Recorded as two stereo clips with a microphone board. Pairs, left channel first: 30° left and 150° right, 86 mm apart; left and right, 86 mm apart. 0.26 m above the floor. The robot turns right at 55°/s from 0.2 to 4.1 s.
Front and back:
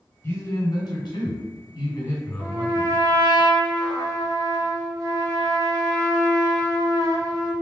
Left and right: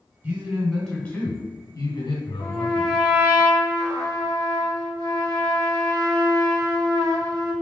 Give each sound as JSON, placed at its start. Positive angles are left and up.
{"t": 0.2, "sound": "a man speaking", "azimuth_deg": -25, "distance_m": 2.0}
{"t": 2.4, "sound": "a trumpet", "azimuth_deg": 150, "distance_m": 1.5}